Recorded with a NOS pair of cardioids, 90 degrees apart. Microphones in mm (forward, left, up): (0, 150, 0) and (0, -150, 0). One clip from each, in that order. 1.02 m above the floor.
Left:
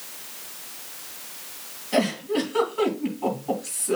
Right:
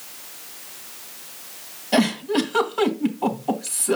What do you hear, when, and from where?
1.9 s a giggle: 55° right, 3 m